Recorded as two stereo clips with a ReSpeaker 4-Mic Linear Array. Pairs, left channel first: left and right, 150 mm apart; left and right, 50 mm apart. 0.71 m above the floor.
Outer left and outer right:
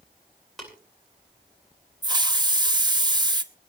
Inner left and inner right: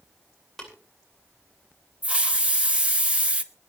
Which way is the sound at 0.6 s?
Centre (ahead or behind).